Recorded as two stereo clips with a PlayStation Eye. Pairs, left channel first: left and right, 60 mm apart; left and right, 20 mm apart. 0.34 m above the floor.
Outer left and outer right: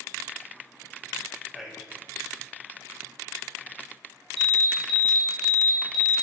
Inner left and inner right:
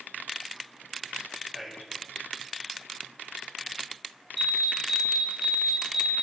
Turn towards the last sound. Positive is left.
turn(degrees=10)  # may be behind; listen again after turning